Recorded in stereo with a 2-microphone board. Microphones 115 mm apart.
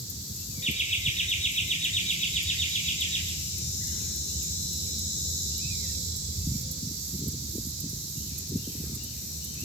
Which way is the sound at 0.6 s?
75° left (ahead or behind).